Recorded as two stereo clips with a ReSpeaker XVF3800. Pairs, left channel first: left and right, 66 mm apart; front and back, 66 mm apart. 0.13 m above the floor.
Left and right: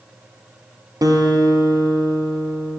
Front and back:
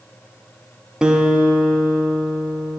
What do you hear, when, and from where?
1.0 s a guitar: 100° right, 2.0 m